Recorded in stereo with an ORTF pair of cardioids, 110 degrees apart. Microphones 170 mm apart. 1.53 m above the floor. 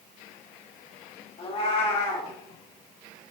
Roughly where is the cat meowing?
Ahead left.